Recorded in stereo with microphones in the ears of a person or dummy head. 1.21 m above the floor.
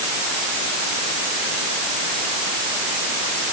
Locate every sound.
Only background noise.